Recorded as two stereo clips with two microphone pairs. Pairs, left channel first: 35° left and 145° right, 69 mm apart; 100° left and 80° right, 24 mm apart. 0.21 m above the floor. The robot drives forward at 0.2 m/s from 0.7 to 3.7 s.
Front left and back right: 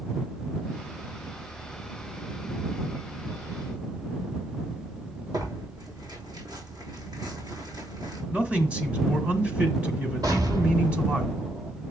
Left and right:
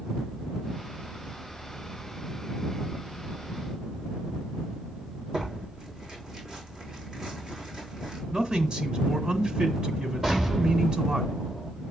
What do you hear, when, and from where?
5.3 s tearing paper: 135° right, 3.5 m
8.3 s a man speaking: 90° right, 1.4 m
10.2 s an explosion: 145° right, 5 m